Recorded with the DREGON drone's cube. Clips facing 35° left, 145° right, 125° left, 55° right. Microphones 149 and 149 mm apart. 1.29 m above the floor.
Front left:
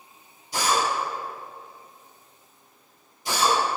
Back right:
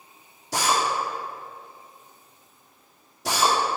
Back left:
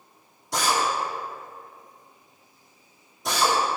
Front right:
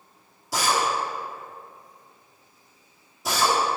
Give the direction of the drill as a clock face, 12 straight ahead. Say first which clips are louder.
Even, even; 5 o'clock.